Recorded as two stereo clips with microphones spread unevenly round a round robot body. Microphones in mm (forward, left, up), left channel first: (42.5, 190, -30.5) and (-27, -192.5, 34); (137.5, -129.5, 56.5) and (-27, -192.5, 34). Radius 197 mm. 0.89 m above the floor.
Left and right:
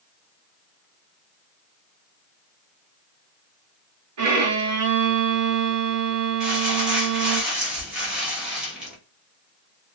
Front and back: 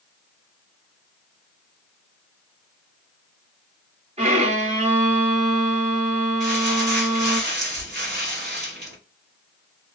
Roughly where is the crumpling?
Behind.